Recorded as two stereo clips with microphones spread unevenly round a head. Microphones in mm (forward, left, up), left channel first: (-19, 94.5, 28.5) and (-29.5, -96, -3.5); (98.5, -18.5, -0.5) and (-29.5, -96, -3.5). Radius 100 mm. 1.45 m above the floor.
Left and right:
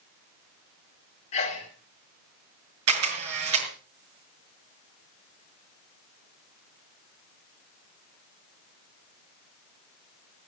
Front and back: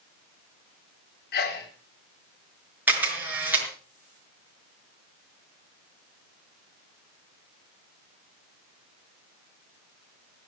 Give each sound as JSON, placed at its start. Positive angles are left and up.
{"t": 1.3, "sound": "a sneeze", "azimuth_deg": 30, "distance_m": 3.0}
{"t": 2.9, "sound": "a camera shutter", "azimuth_deg": -70, "distance_m": 6.0}